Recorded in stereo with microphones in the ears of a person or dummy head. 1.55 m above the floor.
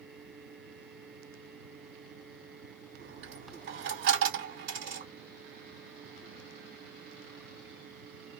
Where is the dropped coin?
55° right (ahead or behind), 2 m.